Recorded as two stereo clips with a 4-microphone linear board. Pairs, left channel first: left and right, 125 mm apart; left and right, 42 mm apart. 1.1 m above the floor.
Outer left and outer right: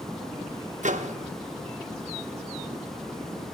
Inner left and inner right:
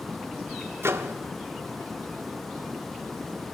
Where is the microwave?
80° right, 0.7 m.